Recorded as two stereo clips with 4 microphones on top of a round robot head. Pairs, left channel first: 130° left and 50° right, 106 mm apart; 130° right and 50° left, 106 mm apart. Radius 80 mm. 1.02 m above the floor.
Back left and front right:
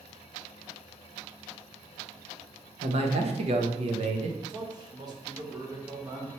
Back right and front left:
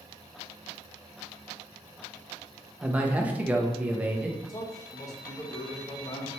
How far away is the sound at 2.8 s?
About 0.7 m.